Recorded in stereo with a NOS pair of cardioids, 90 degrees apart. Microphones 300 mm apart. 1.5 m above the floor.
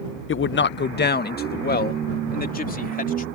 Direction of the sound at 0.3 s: 45° left.